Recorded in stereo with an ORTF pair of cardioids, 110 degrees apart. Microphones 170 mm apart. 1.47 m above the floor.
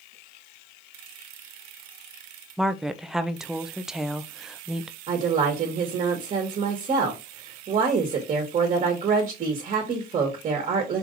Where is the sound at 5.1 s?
40° right, 1.4 m.